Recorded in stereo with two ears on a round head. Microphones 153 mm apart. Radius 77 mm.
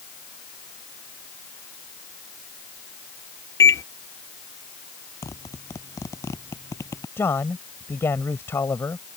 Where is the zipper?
15° left (ahead or behind).